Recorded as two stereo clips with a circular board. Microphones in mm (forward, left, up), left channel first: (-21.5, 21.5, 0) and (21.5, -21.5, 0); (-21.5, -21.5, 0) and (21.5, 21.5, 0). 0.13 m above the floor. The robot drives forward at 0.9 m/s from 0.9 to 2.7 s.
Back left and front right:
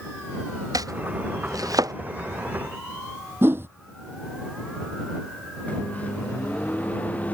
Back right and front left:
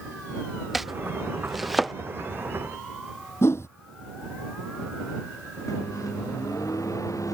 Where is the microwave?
160° right.